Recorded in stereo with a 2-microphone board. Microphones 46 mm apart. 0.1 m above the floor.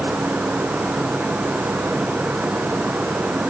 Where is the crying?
No crying in this recording.